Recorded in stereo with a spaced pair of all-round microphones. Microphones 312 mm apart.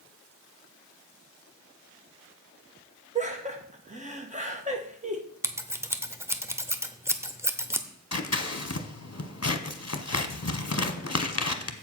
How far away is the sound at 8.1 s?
About 0.8 m.